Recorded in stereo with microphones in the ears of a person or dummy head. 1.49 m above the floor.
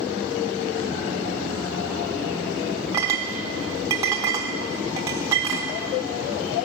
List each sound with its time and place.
2.9 s a clink: 15° right (ahead or behind), 1.0 m